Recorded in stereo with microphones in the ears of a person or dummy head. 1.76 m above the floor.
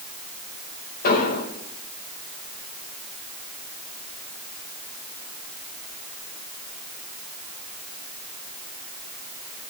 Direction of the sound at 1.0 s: 55° left (ahead or behind).